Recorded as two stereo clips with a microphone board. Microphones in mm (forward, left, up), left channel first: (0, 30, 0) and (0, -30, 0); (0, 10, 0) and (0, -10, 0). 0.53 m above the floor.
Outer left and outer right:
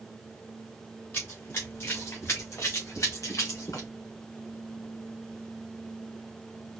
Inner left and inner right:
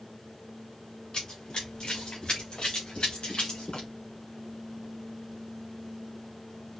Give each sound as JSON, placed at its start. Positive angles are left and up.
{"t": 1.1, "sound": "running footsteps", "side_deg": 40, "distance_m": 2.5}